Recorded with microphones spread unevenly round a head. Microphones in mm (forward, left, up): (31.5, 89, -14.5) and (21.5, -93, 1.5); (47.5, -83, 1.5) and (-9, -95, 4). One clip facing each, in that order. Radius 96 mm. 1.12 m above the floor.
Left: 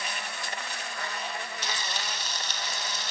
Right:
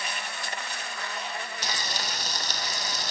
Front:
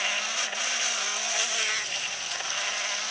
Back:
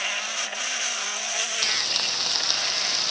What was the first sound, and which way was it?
Frying, 150° right.